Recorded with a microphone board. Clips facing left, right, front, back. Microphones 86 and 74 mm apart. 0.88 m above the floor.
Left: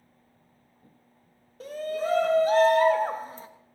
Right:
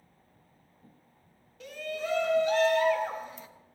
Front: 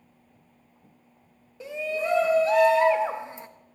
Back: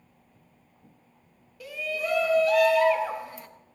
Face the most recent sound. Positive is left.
turn(degrees=55)